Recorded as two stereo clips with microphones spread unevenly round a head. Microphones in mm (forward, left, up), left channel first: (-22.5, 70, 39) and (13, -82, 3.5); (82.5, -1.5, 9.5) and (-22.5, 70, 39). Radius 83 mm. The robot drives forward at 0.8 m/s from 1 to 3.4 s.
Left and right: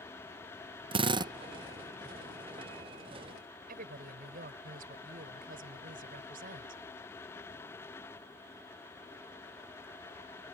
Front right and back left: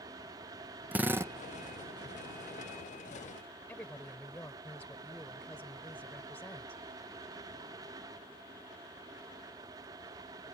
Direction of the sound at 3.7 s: 115° right.